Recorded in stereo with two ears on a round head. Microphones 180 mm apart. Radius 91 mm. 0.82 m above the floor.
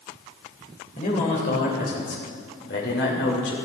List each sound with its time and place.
1.0 s a man speaking: 40° left (ahead or behind), 3.5 m; by 3.6 s 70° left (ahead or behind), 3 m